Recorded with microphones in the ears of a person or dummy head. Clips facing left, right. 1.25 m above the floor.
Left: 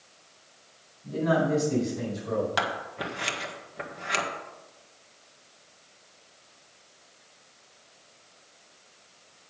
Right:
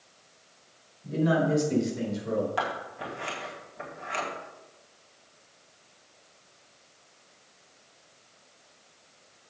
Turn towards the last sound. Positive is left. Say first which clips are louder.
# left 1 dB
turn(degrees=70)  # may be behind; listen again after turning